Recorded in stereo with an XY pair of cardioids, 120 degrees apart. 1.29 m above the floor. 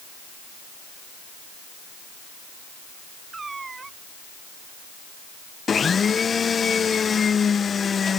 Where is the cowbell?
I don't hear a cowbell.